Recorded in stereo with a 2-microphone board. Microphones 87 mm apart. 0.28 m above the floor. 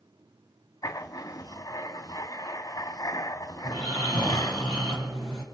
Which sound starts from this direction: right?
Snoring, at 3.6 s.